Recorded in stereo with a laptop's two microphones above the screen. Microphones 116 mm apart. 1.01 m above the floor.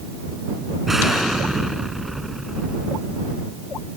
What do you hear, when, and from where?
0.9 s an explosion: 5° right (ahead or behind)